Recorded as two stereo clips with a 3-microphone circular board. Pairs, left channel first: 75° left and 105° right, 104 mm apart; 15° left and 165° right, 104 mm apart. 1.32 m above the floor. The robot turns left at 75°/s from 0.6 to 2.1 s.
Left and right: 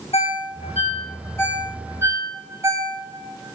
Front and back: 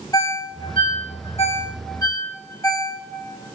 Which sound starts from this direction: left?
A ringtone, at 0.1 s.